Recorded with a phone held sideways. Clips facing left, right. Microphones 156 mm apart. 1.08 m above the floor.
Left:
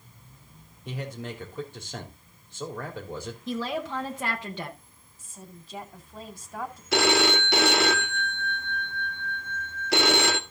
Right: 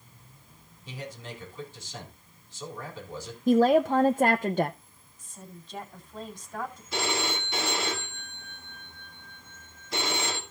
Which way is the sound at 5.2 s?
5° left (ahead or behind).